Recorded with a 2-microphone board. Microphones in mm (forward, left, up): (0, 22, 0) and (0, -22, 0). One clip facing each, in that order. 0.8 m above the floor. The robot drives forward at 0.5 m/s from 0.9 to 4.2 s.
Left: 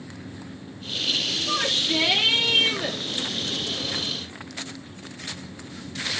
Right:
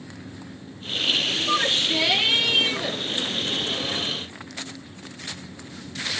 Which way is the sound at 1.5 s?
25° left (ahead or behind).